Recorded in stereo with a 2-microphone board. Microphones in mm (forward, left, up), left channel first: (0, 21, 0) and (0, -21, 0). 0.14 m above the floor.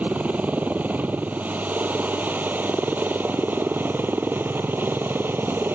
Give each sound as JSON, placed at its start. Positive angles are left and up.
{"t": 0.0, "sound": "a helicopter", "side_deg": -35}